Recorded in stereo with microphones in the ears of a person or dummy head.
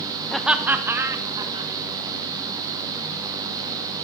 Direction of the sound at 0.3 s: Centre (ahead or behind).